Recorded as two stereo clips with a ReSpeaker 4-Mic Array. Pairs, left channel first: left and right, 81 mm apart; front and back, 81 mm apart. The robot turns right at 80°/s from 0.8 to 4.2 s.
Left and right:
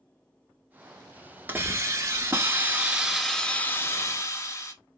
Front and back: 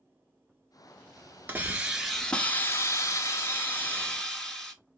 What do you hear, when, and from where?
1.5 s a hiss: 135° right, 0.9 m; by 4.7 s 85° left, 0.9 m